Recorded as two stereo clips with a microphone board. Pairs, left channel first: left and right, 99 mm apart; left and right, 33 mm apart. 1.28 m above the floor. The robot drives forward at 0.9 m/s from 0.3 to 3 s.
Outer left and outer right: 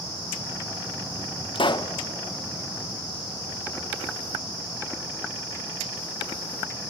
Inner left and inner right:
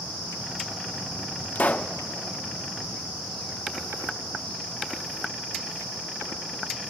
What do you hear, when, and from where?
1.6 s a pop: 60° left (ahead or behind), 0.5 m; by 1.9 s 40° left (ahead or behind), 0.7 m